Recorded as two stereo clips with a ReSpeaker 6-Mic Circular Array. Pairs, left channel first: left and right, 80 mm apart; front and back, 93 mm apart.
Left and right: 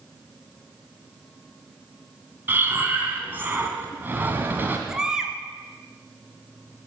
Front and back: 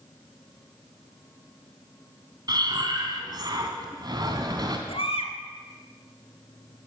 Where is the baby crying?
10° right, 1.5 m.